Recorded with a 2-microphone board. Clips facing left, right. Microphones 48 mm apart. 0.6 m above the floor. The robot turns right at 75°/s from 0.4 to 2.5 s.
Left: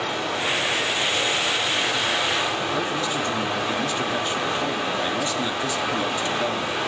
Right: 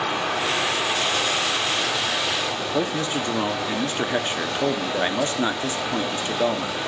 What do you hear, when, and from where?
0.0 s running water: 125° right, 5 m; by 6.9 s 35° left, 5 m
2.7 s a man speaking: 35° right (ahead or behind), 0.9 m